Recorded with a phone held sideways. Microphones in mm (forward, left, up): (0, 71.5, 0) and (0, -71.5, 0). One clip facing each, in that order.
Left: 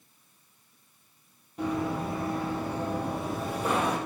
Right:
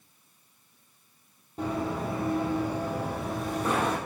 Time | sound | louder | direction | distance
1.6 | running footsteps | left 1 dB | 30° right (ahead or behind) | 2 m